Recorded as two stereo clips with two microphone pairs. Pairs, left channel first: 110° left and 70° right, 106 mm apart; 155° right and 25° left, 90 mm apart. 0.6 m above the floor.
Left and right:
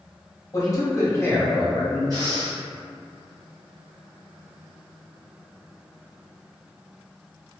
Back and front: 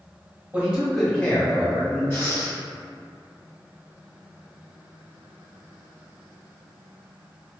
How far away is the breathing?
About 1.1 m.